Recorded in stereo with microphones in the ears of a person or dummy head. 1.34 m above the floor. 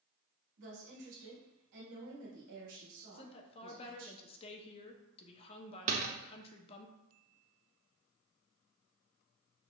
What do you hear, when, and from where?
0.6 s a woman speaking: 70° right (ahead or behind), 1.6 m
3.1 s a woman speaking: 30° left (ahead or behind), 0.7 m
5.9 s a door slam: 45° right (ahead or behind), 0.7 m